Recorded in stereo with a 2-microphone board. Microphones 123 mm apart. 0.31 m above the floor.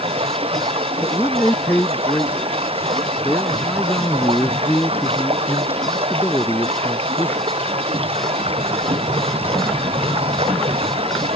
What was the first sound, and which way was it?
Running water, 55° right (ahead or behind).